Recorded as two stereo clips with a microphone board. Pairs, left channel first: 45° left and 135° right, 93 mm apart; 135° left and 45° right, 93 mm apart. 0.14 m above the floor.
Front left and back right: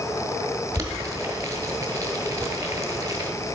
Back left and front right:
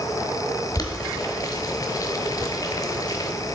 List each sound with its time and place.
0.8 s boiling: 175° left, 0.8 m